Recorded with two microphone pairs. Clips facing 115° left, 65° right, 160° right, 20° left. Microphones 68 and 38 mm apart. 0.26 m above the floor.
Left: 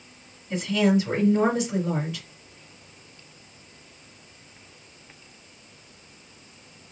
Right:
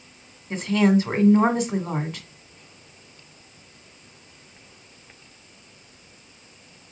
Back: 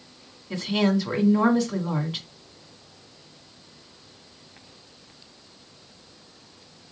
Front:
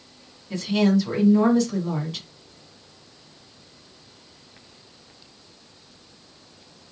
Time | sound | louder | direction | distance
0.5 | a woman speaking | right 2 dB, front 2 dB | 95° right | 1.7 m